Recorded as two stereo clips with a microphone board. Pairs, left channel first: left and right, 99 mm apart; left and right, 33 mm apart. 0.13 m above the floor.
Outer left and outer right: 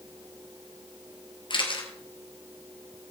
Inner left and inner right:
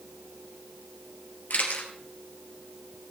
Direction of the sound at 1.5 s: 55° left (ahead or behind).